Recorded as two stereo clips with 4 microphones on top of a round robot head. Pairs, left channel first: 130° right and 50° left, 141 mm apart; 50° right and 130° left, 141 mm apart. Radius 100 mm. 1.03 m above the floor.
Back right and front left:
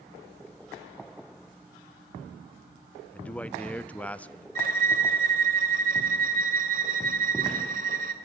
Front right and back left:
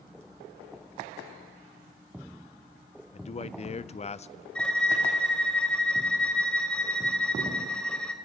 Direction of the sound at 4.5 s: 30° left.